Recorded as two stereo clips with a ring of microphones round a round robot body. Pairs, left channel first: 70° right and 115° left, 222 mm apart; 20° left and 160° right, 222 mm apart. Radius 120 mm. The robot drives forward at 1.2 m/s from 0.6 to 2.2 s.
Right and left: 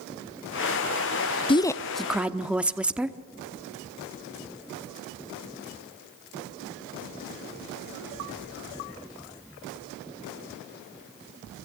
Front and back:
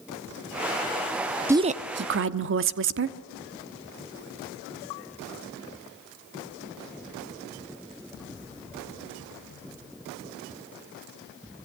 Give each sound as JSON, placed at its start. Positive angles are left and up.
{"t": 1.5, "sound": "a woman speaking", "azimuth_deg": -90, "distance_m": 0.7}